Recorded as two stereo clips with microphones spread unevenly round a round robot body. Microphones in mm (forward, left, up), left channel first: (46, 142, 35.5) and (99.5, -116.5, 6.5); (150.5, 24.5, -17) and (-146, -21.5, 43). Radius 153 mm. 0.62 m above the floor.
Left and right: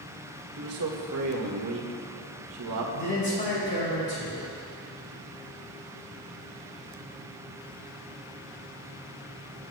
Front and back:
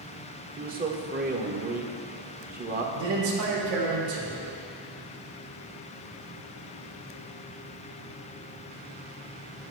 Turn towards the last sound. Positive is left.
turn(degrees=165)